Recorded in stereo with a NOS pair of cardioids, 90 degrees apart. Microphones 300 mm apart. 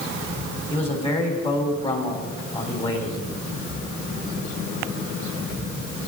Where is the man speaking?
20° left, 3.5 m.